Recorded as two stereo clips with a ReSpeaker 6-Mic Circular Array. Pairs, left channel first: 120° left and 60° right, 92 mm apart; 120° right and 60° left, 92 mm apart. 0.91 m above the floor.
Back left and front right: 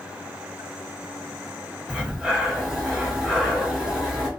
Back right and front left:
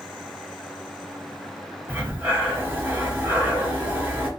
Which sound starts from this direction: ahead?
Breathing, at 1.9 s.